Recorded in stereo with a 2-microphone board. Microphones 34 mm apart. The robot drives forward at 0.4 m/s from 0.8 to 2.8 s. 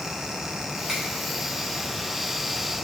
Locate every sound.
0.9 s a finger snap: 20° right (ahead or behind), 3.5 m